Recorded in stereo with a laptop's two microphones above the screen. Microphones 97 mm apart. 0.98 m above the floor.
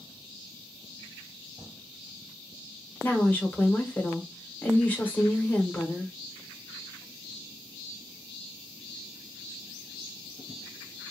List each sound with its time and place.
3.0 s a woman speaking: 20° left (ahead or behind), 0.9 m